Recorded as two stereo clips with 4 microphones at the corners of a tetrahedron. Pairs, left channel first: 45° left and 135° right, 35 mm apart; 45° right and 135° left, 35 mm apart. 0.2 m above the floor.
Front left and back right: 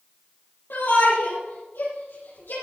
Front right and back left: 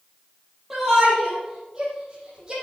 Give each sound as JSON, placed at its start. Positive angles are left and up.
{"t": 0.7, "sound": "a shout", "azimuth_deg": 55, "distance_m": 5.0}